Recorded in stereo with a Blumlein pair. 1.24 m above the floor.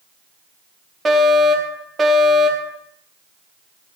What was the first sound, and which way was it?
A fire alarm, 20° right.